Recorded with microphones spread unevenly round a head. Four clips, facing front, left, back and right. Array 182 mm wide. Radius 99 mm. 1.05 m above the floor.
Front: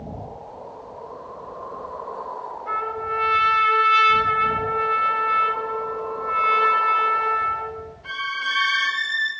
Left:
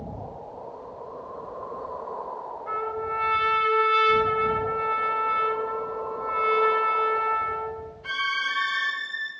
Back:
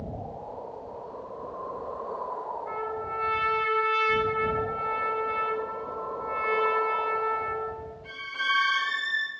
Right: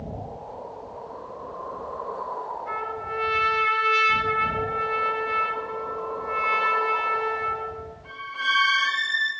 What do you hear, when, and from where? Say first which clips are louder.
2.7 s a trumpet: left 2 dB, front 6 dB; 10° left, 6 m